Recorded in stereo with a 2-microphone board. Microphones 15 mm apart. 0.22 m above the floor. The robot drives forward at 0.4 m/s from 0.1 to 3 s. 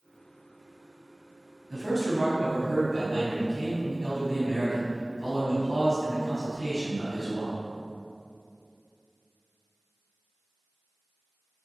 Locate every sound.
1.7 s a man speaking: 20° right (ahead or behind), 1.0 m; by 7.6 s 15° right (ahead or behind), 1.2 m